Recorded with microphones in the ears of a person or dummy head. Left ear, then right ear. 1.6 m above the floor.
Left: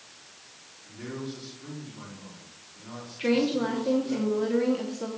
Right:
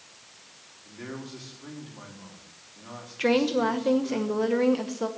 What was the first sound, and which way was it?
A man speaking, 30° right (ahead or behind).